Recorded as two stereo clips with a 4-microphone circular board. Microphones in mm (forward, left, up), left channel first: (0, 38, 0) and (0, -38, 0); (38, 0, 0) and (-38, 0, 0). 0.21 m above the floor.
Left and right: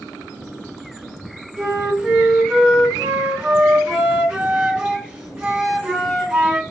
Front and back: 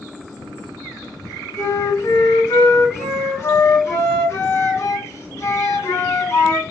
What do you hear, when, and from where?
1.6 s a flute: 15° right, 2.0 m